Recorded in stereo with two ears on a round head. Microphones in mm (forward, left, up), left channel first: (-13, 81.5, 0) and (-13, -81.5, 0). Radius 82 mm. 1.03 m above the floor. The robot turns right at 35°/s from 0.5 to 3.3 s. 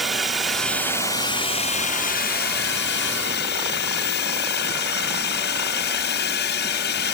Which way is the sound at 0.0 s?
Straight ahead.